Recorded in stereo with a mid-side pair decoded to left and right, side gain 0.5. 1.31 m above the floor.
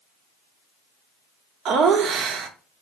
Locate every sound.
1.6 s laughter: 65° right, 0.6 m